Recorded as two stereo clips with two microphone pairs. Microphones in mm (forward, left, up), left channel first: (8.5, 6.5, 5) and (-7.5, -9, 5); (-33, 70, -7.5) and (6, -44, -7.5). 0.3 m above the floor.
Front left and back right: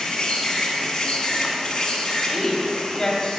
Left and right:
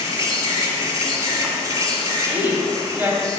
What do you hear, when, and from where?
0.0 s an insect: 10° right, 1.2 m
2.2 s a woman speaking: 10° right, 1.2 m